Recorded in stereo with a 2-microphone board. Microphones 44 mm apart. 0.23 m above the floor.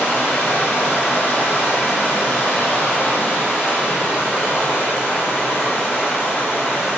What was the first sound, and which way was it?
Running water, 35° left (ahead or behind).